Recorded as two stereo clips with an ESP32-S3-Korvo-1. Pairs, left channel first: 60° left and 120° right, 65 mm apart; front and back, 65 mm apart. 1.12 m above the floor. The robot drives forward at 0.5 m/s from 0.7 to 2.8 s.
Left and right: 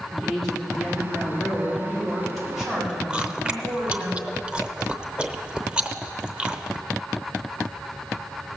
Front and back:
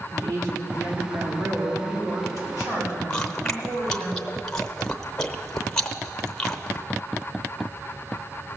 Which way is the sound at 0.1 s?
145° left.